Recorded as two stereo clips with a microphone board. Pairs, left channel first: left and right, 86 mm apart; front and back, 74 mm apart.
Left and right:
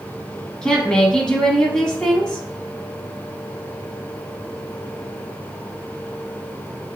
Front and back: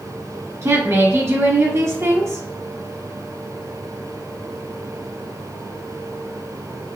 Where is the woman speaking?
165° left, 1.6 m.